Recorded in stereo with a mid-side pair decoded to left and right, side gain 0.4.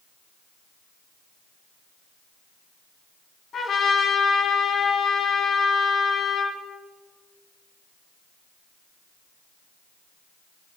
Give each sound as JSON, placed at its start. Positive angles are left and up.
{"t": 3.5, "sound": "a trumpet", "azimuth_deg": 55, "distance_m": 3.0}